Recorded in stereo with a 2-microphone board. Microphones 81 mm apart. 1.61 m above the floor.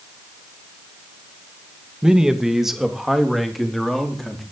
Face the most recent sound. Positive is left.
turn(degrees=0)  # may be behind; listen again after turning